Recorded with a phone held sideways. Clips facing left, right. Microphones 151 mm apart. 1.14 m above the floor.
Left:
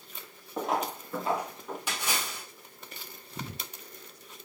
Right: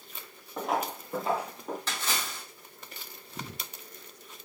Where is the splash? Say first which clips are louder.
Even; 10° left (ahead or behind), 1.0 m.